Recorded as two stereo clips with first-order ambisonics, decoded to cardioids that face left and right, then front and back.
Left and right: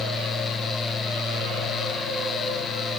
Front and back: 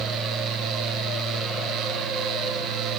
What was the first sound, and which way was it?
Only background noise.